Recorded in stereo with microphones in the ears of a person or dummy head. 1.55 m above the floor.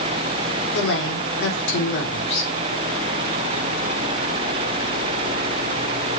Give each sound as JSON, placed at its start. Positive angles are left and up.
{"t": 0.7, "sound": "a woman speaking", "side_deg": 65, "distance_m": 4.0}